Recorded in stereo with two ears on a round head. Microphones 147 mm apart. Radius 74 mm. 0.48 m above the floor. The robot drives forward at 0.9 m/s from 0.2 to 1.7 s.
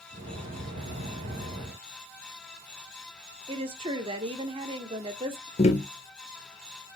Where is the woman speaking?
35° right (ahead or behind), 1.1 m.